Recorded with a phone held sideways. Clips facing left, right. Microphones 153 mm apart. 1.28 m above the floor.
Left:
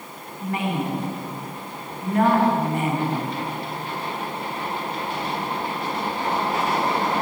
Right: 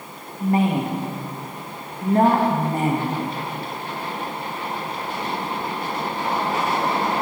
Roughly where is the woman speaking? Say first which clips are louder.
Right 6 dB; right.